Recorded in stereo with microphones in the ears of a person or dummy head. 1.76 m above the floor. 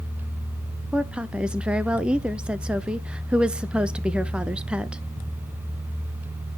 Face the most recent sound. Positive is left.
turn(degrees=-10)  # may be behind; listen again after turning